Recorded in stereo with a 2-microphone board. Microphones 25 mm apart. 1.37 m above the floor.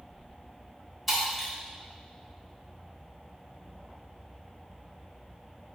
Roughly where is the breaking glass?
Centre.